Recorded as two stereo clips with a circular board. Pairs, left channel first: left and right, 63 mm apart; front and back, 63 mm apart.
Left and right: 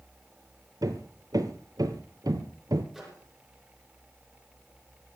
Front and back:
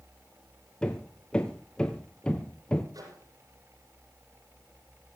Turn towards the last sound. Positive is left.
turn(degrees=180)